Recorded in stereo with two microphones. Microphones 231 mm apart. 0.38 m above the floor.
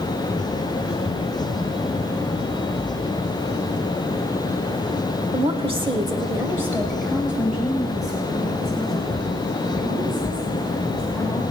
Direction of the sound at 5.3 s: 25° right (ahead or behind).